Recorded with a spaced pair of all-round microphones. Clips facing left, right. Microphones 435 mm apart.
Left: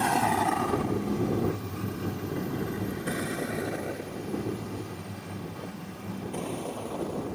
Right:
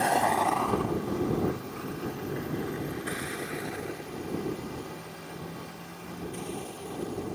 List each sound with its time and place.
0.0 s a vehicle: 20° left (ahead or behind); by 7.4 s 75° left (ahead or behind)